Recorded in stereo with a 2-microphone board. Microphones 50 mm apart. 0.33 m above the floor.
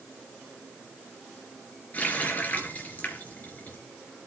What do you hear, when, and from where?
1.9 s a running tap: 35° left (ahead or behind), 3.5 m